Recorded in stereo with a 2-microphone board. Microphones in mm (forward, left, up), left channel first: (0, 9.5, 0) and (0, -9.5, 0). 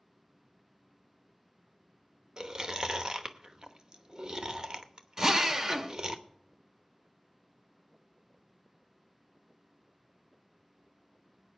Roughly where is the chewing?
Right.